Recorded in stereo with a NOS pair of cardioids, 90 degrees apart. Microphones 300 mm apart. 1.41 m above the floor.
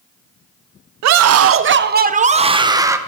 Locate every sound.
1.0 s a scream: 65° right, 0.9 m; by 3.0 s 10° right, 1.4 m